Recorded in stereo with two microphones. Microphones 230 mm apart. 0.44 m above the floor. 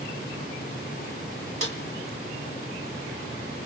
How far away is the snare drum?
About 1.7 m.